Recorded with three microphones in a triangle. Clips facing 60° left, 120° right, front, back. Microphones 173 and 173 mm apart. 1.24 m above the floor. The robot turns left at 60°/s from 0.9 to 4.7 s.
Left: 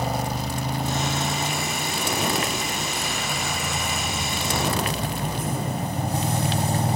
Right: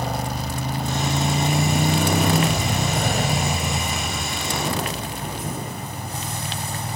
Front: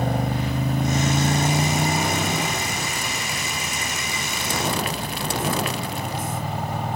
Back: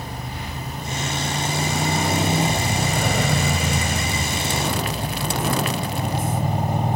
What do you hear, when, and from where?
0.0 s a motorcycle: 25° right; by 7.0 s 110° left